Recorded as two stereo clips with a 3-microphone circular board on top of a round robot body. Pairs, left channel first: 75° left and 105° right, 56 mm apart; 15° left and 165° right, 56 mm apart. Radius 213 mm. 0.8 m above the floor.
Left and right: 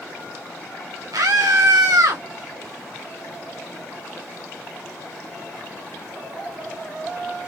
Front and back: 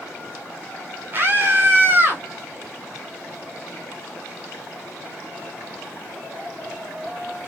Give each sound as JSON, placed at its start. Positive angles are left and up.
{"t": 1.1, "sound": "a scream", "azimuth_deg": -110, "distance_m": 2.5}